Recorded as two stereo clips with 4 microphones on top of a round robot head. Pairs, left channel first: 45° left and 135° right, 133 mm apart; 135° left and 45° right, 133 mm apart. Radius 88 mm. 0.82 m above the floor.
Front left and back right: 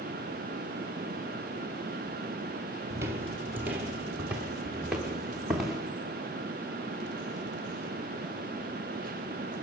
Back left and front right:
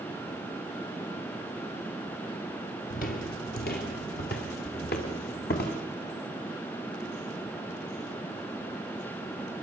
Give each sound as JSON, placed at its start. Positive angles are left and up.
{"t": 2.9, "sound": "footsteps", "azimuth_deg": 160, "distance_m": 1.4}